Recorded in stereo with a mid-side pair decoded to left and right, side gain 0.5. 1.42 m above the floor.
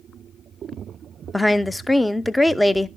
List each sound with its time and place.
1.3 s a woman speaking: 5° left, 0.5 m